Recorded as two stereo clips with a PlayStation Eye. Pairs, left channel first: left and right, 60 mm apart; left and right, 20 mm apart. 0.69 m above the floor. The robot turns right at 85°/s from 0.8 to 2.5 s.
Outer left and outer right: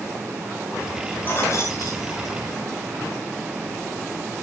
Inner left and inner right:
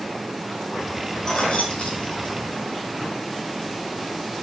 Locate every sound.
1.2 s keys jangling: 30° left (ahead or behind), 4 m; by 2.7 s 45° left (ahead or behind), 4 m